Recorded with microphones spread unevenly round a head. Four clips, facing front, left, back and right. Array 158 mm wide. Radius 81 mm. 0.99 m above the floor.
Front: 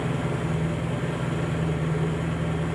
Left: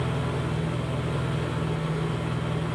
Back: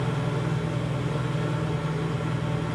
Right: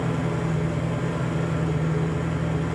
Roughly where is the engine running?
Ahead right.